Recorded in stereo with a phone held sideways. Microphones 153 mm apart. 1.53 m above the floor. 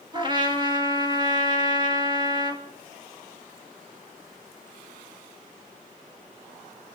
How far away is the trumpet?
About 2.5 m.